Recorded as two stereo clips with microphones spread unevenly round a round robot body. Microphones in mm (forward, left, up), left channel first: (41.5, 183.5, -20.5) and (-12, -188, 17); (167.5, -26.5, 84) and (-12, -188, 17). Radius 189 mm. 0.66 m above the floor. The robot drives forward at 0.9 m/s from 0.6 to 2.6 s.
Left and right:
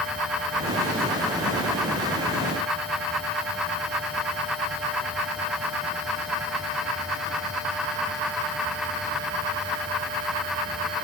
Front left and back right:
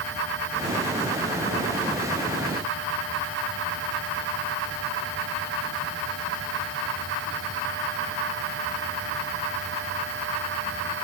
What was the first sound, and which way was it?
Only background noise.